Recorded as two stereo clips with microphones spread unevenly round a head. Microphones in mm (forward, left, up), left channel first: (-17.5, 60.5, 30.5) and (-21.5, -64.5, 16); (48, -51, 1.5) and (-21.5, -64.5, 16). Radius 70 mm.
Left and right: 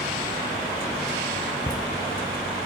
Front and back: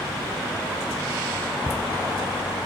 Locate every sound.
1.7 s laughter: straight ahead, 0.6 m